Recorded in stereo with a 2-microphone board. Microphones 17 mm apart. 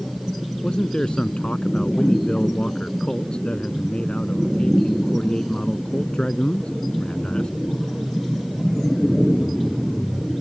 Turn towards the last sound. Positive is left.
turn(degrees=75)  # may be behind; listen again after turning